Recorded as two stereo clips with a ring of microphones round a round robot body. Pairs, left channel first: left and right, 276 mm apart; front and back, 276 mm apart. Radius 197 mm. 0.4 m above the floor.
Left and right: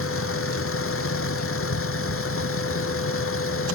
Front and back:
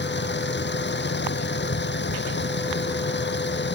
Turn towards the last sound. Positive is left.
turn(degrees=50)